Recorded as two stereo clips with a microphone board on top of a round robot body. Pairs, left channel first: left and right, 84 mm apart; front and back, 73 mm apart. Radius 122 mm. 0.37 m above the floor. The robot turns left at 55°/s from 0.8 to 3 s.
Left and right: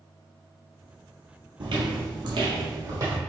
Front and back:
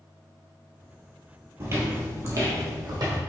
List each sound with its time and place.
1.6 s footsteps: 125° right, 0.8 m; by 3.2 s 145° right, 1.5 m